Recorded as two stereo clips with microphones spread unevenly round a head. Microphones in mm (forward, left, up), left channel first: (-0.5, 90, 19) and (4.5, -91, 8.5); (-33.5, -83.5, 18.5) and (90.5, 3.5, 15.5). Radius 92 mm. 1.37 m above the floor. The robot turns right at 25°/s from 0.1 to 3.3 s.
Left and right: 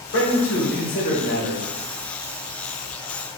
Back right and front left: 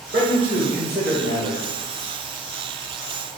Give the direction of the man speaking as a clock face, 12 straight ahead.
9 o'clock.